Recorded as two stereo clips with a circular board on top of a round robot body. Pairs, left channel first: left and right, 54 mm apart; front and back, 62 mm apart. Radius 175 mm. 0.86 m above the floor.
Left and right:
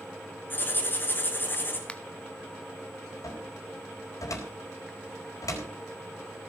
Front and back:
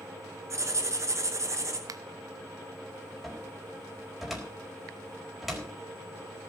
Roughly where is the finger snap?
Behind.